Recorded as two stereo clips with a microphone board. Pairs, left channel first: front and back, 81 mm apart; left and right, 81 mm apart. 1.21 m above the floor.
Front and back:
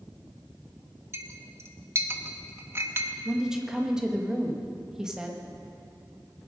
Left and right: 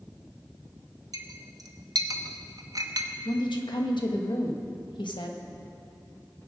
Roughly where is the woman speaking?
Left.